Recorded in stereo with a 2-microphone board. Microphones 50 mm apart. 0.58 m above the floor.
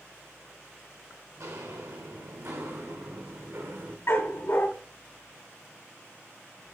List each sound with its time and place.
1.4 s footsteps: 75° right (ahead or behind), 3 m; by 4.0 s 50° right (ahead or behind), 2 m
4.1 s a dog barking: 55° left (ahead or behind), 2.0 m